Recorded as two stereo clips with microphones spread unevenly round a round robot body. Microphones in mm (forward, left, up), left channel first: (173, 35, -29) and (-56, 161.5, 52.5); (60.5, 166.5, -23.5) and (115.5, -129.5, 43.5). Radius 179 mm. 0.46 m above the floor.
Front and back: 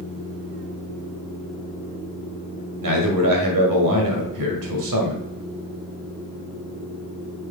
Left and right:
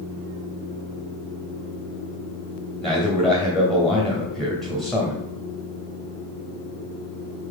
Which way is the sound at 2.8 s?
175° right.